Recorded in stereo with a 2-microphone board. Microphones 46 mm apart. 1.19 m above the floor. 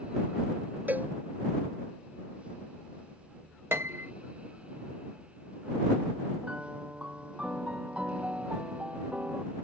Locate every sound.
0.9 s a cowbell: 40° right (ahead or behind)
3.7 s a piano: 65° right (ahead or behind)
6.4 s a piano: 25° right (ahead or behind)